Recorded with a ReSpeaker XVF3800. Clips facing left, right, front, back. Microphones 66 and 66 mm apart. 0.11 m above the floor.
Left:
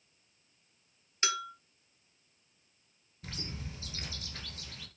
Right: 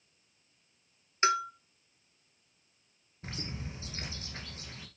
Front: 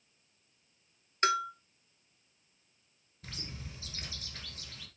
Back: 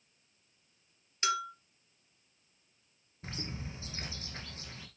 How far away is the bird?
About 1.5 m.